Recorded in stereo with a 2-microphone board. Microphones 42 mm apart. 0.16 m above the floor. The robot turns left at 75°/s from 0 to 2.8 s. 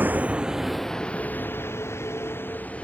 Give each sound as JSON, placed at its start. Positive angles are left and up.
{"t": 0.0, "sound": "a vehicle", "side_deg": -50}